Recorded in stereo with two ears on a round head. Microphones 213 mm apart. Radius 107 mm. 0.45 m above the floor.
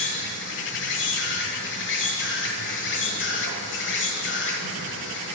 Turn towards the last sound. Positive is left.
turn(degrees=55)  # may be behind; listen again after turning